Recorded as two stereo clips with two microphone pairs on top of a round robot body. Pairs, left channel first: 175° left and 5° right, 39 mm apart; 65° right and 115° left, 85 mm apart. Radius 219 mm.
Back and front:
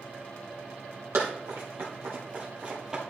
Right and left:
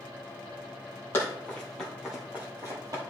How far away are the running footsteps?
About 1.7 m.